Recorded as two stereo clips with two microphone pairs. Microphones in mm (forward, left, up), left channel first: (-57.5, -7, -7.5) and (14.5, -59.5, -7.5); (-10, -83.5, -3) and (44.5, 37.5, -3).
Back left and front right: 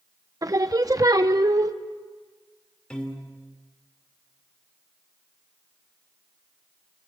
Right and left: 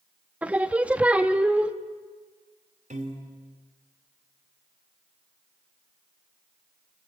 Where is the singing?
10° right, 0.8 m.